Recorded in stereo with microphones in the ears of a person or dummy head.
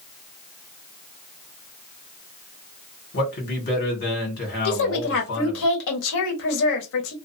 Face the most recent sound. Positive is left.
turn(degrees=70)  # may be behind; listen again after turning